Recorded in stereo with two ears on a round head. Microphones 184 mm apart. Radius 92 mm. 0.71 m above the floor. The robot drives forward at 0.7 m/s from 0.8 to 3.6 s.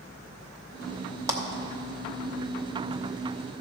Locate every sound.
1.3 s a clap: 15° right (ahead or behind), 1.0 m